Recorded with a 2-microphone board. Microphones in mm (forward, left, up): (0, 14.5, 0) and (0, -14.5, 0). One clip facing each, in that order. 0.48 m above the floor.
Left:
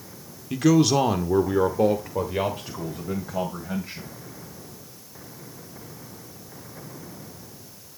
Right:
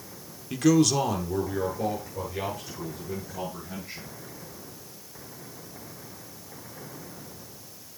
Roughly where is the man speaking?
Centre.